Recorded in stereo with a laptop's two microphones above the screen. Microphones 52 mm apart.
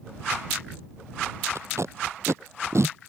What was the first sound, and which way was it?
Tape being pulled, 65° right (ahead or behind).